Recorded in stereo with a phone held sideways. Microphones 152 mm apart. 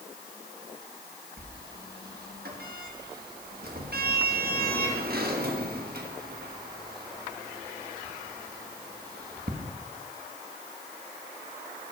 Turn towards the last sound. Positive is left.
turn(degrees=-70)  # may be behind; listen again after turning